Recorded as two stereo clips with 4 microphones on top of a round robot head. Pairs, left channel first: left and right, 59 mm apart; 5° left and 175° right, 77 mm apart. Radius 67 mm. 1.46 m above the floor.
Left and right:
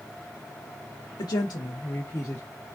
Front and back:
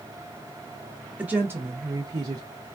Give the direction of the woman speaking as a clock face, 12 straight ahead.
8 o'clock.